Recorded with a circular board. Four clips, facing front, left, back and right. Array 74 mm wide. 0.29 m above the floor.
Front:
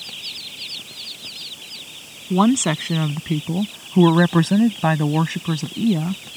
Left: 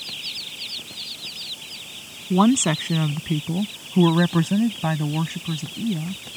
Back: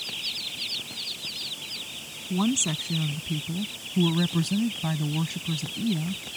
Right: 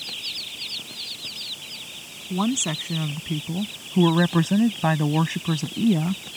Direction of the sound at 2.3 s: 35° left.